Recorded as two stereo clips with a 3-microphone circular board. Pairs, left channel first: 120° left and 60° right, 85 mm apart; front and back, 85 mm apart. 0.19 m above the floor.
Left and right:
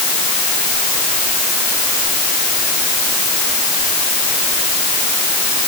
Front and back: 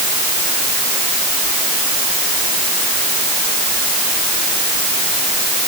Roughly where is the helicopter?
I don't hear a helicopter.